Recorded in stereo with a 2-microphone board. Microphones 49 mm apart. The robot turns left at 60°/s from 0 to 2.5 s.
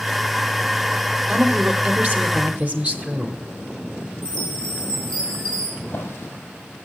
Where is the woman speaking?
50° right, 1.1 m; by 3.4 s 125° right, 1.1 m.